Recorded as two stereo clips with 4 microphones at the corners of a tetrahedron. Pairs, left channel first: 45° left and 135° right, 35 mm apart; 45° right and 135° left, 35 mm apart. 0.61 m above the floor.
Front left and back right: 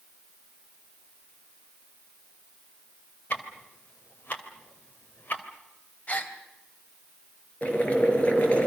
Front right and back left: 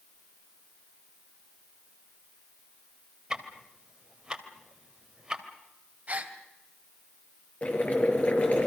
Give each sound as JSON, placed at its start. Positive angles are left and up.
{"t": 3.3, "sound": "ticking", "azimuth_deg": 70, "distance_m": 3.0}
{"t": 6.1, "sound": "a gasp", "azimuth_deg": 95, "distance_m": 2.5}
{"t": 7.6, "sound": "boiling", "azimuth_deg": 0, "distance_m": 5.5}